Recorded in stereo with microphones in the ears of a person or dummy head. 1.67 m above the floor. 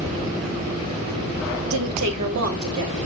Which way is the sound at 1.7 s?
65° right (ahead or behind).